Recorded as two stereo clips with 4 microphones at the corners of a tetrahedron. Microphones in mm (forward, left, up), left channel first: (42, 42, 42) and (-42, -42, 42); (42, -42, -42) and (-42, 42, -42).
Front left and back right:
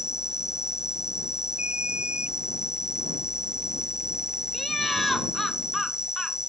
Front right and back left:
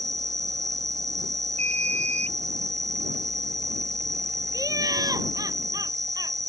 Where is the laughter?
135° left.